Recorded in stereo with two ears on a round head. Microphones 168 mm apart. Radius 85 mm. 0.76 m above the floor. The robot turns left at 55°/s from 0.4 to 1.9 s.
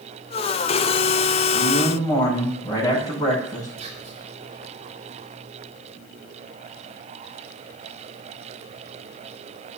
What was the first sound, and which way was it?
A man speaking, 40° left (ahead or behind).